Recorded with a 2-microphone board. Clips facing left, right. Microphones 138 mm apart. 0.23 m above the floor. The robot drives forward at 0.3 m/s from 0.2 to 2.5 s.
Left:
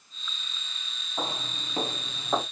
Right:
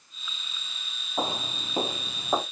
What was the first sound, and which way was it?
Footsteps, 25° right (ahead or behind).